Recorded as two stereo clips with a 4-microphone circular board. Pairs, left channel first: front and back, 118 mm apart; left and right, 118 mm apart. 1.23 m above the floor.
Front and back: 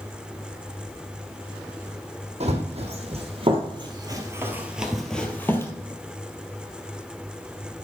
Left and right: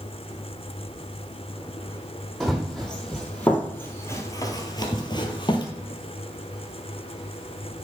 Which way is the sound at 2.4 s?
Straight behind.